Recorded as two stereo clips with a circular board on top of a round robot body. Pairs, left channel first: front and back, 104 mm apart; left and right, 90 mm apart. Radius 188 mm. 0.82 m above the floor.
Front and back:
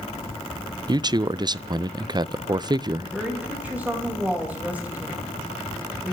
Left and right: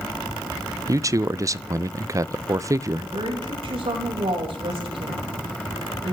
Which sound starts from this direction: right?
A woman speaking, at 3.0 s.